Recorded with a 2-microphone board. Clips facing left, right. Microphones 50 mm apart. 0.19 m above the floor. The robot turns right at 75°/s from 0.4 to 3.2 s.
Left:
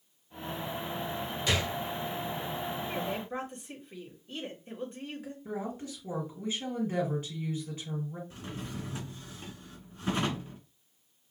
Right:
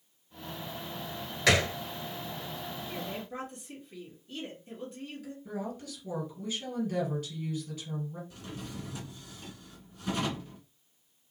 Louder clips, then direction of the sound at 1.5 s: Right 6 dB; 75° right (ahead or behind).